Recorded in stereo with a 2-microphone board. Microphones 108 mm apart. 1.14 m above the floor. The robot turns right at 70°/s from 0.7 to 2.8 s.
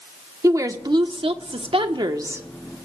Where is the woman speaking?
145° right, 1.0 m; by 2.5 s 20° right, 1.0 m.